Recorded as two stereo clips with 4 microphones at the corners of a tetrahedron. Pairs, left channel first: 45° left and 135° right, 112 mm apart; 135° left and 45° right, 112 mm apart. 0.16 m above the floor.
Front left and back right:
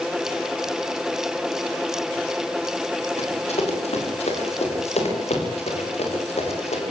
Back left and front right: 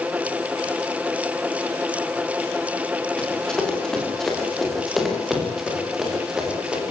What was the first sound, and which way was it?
Running footsteps, 55° left.